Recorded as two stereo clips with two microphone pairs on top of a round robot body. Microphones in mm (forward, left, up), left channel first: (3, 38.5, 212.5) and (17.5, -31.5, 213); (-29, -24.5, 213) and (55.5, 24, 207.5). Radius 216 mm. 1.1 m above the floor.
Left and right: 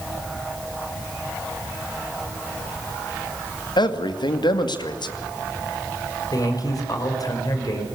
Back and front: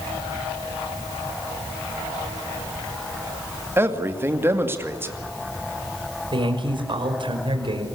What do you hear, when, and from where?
3.8 s a man speaking: 95° left, 2.5 m
6.3 s a man speaking: 70° left, 5.5 m